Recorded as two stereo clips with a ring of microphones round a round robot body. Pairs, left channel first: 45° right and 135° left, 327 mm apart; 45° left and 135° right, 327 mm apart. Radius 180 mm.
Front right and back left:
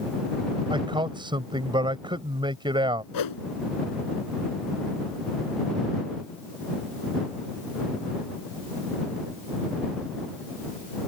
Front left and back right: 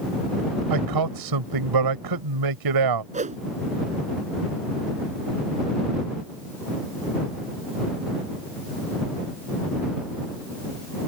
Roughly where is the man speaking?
Behind right.